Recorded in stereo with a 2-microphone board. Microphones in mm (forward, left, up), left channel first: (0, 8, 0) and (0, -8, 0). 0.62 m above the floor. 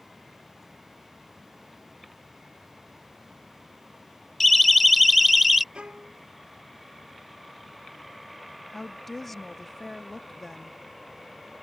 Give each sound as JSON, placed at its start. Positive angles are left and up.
{"t": 4.4, "sound": "a siren", "side_deg": 10}
{"t": 5.7, "sound": "a violin", "side_deg": -85}
{"t": 8.7, "sound": "a woman speaking", "side_deg": 20}